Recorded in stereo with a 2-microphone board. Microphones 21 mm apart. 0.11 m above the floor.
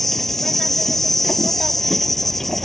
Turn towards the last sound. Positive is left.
turn(degrees=15)  # may be behind; listen again after turning